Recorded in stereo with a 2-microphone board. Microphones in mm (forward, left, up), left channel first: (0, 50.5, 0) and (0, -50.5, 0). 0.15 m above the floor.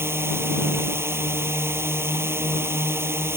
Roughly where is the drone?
Right.